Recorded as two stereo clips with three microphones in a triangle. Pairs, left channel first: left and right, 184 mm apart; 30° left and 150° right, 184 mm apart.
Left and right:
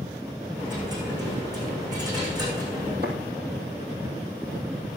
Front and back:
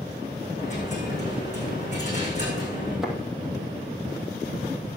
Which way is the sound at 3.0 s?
60° right.